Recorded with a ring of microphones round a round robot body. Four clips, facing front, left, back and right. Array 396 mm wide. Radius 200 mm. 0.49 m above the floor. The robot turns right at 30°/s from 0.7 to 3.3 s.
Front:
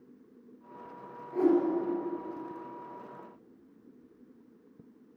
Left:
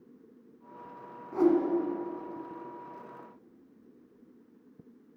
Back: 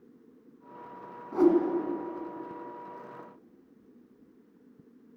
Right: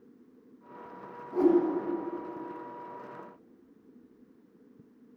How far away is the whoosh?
About 1.6 m.